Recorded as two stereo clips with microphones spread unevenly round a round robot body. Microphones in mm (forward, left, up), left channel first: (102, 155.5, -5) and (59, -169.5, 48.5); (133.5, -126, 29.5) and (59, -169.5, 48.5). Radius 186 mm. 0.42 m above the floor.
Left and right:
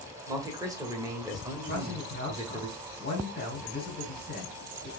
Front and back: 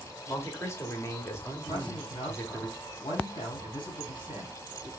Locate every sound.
0.3 s a man speaking: 15° right, 1.7 m
1.7 s a man speaking: 25° left, 3 m